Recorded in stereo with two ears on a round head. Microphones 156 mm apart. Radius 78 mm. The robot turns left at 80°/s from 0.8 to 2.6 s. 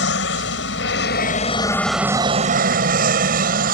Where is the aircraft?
90° left; by 3.7 s 55° right.